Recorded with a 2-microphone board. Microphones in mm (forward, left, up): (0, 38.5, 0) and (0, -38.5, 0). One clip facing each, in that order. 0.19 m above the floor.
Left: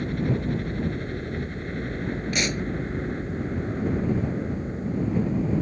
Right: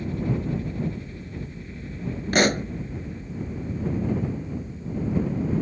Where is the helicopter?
60° left (ahead or behind).